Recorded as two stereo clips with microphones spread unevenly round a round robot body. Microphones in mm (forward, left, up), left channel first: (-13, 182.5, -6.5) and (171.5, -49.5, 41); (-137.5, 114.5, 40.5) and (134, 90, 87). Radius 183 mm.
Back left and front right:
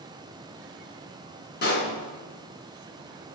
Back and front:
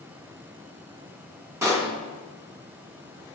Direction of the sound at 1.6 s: 75° left.